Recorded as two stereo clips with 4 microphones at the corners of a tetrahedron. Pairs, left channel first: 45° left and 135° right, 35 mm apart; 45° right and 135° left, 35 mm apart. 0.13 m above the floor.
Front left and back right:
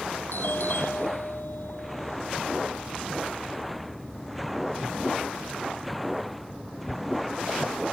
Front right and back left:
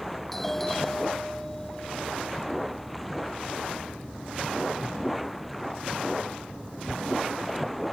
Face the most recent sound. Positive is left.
turn(degrees=40)